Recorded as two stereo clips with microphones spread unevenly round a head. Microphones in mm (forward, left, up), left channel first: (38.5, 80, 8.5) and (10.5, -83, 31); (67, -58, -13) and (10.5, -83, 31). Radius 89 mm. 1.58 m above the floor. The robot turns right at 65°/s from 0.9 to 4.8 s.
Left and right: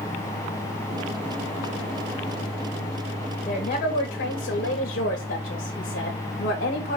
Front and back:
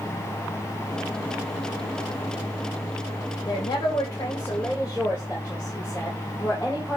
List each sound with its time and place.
3.5 s a woman speaking: 25° left, 3 m; by 7.0 s 115° left, 3 m